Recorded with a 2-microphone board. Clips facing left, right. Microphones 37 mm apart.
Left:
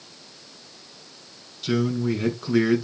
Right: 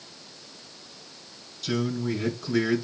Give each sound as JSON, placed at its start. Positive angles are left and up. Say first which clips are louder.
{"t": 1.6, "sound": "a man speaking", "louder": "left 4 dB", "side_deg": 25, "distance_m": 5.5}